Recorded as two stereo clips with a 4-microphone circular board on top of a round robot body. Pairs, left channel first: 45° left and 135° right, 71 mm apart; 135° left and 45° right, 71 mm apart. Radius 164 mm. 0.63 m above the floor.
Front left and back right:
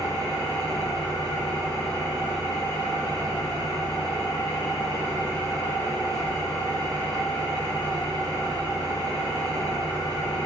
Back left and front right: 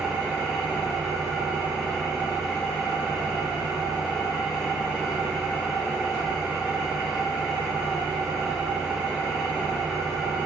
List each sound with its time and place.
0.0 s an engine running: 40° left, 5.5 m